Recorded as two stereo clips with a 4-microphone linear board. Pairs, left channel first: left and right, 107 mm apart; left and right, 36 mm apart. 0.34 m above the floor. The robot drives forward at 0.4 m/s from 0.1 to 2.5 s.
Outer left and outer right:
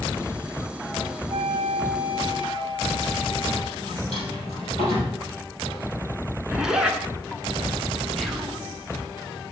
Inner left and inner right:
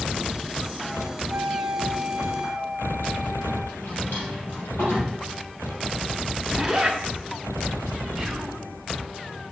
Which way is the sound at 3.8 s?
80° left.